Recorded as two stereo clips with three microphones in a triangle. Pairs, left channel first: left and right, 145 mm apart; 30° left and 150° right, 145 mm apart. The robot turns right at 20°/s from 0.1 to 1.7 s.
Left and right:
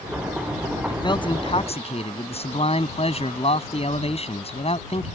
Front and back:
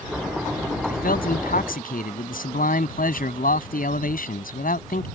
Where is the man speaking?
25° left; by 5.1 s 45° left.